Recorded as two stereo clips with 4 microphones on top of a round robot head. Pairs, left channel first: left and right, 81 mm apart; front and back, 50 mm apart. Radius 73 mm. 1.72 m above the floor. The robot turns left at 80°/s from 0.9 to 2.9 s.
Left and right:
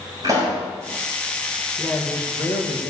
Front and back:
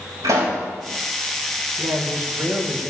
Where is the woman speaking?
175° right, 2.5 m; by 2.9 s 95° left, 2.5 m.